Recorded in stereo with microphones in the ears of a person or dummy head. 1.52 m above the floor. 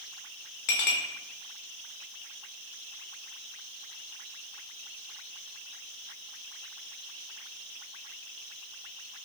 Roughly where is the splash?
I don't hear a splash.